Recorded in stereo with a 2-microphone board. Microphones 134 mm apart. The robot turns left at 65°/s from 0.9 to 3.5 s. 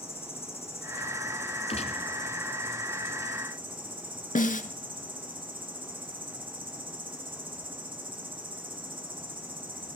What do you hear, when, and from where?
0.0 s an insect: 120° left, 4 m; by 10.0 s 50° right, 4 m
1.7 s a gunshot: 50° left (ahead or behind), 1.3 m; by 2.0 s 70° left (ahead or behind), 1.3 m
4.3 s a snare drum: 85° left, 1.0 m